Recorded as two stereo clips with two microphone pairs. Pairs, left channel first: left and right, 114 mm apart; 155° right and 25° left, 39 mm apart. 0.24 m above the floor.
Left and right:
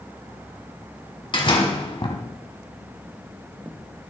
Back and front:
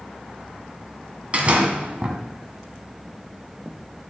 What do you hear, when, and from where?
1.3 s a door slam: 70° left, 1.4 m